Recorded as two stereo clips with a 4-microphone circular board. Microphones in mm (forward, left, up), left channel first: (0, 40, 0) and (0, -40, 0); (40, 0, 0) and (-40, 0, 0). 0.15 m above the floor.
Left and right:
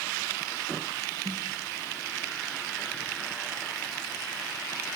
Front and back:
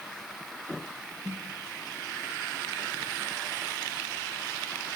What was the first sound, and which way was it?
A snare drum, 125° right.